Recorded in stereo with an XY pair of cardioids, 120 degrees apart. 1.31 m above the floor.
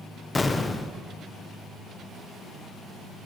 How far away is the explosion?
About 0.5 m.